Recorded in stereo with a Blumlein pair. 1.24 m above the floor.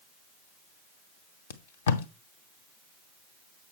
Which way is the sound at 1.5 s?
60° left.